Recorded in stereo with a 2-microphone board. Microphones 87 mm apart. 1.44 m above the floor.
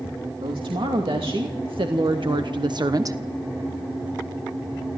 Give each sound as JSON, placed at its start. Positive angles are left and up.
{"t": 0.4, "sound": "a woman speaking", "side_deg": -85, "distance_m": 3.0}